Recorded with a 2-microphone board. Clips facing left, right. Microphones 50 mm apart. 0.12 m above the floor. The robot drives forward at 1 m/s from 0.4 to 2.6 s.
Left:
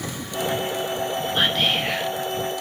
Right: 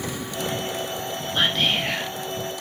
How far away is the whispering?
About 1.2 m.